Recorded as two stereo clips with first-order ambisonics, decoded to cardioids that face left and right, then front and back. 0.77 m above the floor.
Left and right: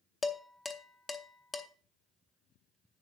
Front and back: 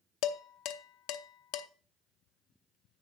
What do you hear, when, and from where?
0.2 s dishes clattering: 15° left, 0.8 m